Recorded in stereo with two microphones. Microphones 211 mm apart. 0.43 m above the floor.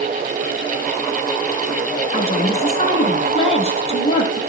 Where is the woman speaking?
30° left (ahead or behind), 7 m.